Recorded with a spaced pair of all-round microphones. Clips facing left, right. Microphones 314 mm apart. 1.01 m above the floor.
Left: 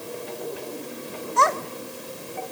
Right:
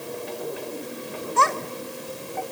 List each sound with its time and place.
1.4 s a child speaking: 35° right (ahead or behind), 2 m; by 2.4 s 60° right (ahead or behind), 2 m